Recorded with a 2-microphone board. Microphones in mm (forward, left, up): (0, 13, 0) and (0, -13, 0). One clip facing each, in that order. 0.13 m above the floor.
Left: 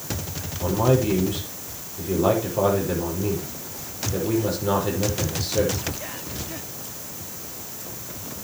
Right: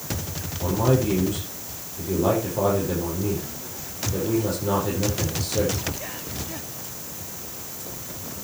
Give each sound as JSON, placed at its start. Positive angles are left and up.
{"t": 0.6, "sound": "a man speaking", "side_deg": 20, "distance_m": 6.0}